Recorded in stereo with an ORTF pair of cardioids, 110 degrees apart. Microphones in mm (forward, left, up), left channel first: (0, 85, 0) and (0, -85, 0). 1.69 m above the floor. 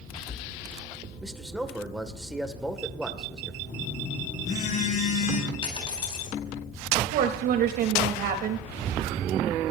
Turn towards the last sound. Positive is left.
turn(degrees=-70)